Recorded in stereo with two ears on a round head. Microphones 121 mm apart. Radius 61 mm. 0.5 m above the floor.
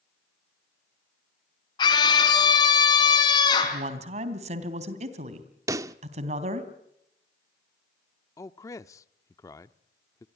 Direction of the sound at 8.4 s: 25° left (ahead or behind).